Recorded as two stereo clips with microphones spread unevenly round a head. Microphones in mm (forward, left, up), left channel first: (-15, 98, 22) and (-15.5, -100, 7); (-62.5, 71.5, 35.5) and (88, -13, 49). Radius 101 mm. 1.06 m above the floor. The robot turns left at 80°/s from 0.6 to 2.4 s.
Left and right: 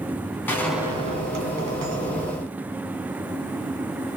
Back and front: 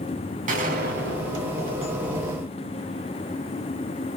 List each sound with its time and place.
0.5 s a gunshot: 10° left, 2 m; by 2.6 s 135° right, 2 m